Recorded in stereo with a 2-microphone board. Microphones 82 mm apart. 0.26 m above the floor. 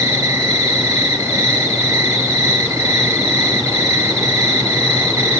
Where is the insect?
35° right (ahead or behind), 2.5 m.